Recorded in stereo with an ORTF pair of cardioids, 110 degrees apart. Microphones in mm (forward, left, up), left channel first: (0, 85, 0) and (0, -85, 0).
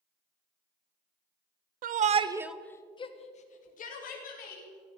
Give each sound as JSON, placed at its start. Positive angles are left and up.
{"t": 1.8, "sound": "a shout", "azimuth_deg": -60, "distance_m": 1.1}